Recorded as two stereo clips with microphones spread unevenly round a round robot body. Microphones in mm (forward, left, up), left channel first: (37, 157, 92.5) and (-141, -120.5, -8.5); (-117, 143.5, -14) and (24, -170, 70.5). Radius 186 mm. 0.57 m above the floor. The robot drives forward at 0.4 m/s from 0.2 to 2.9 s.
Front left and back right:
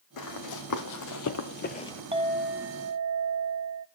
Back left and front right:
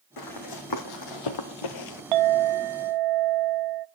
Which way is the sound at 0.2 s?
75° left.